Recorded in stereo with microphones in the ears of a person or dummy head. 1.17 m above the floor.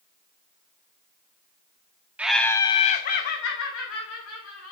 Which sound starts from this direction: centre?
Laughter, at 2.2 s.